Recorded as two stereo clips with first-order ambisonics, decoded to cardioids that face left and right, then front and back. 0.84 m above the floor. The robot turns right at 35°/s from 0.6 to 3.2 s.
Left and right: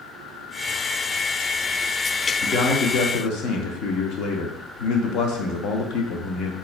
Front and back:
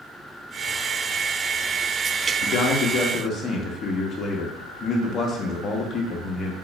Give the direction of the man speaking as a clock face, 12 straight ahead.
11 o'clock.